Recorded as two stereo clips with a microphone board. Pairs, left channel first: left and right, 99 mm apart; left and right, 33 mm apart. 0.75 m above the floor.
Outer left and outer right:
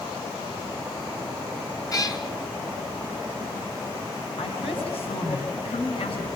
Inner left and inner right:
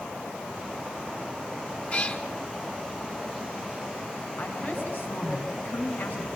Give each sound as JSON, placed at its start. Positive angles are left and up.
{"t": 1.9, "sound": "a cat meowing", "side_deg": 40, "distance_m": 2.0}
{"t": 4.4, "sound": "a woman speaking", "side_deg": 75, "distance_m": 6.5}